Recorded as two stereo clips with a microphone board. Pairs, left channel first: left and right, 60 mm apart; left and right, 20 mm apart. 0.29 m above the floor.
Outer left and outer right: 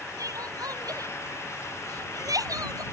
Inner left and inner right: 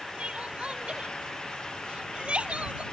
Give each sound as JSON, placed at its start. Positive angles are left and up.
{"t": 0.2, "sound": "crying", "side_deg": -80}